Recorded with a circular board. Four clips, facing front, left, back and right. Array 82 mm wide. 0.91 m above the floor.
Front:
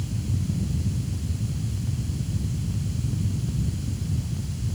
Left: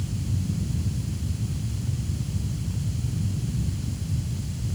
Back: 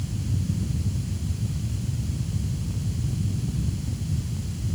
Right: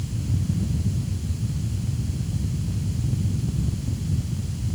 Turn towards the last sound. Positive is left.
No sound to turn to.